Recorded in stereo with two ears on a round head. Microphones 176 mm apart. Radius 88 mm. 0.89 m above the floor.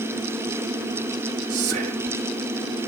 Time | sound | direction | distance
1.5 | whispering | 60° right (ahead or behind) | 1.5 m